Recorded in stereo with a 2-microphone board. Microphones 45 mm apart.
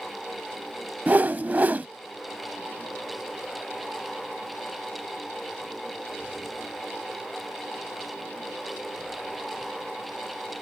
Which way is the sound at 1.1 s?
40° right (ahead or behind).